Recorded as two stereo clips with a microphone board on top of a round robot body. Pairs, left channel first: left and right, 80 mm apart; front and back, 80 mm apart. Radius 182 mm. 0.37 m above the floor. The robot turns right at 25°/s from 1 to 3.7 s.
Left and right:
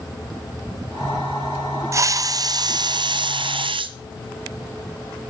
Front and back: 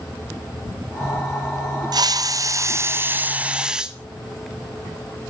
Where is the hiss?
145° right, 0.7 m; by 4.0 s 100° right, 0.7 m.